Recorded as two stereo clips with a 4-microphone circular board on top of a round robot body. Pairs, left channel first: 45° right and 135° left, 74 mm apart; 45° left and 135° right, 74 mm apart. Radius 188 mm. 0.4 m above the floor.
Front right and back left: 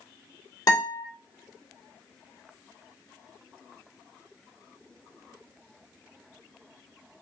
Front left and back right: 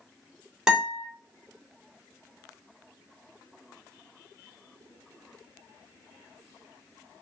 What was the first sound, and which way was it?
A guitar, 55° right.